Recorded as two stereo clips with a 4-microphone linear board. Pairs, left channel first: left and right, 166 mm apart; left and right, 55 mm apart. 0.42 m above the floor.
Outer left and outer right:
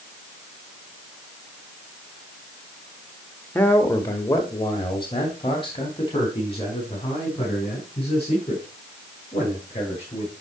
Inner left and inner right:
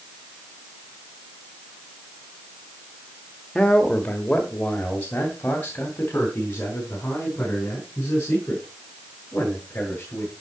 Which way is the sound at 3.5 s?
10° left (ahead or behind).